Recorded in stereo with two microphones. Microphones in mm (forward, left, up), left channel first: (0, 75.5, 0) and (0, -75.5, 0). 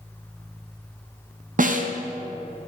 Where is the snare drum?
60° right (ahead or behind), 0.7 m.